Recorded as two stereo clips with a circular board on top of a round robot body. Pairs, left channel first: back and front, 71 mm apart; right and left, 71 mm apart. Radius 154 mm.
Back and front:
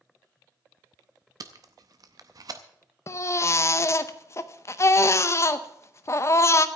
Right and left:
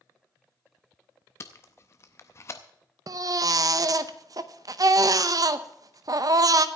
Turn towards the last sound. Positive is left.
turn(degrees=130)